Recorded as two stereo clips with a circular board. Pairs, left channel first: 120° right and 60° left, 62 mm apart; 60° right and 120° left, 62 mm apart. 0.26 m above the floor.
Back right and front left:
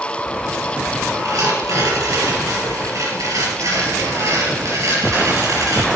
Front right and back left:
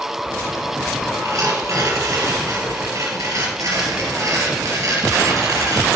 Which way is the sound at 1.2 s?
95° left.